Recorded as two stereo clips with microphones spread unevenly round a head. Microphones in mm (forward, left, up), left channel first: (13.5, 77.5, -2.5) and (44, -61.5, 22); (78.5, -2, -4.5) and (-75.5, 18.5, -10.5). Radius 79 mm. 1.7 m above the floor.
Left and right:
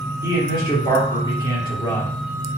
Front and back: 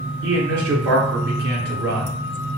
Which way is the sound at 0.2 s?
165° left.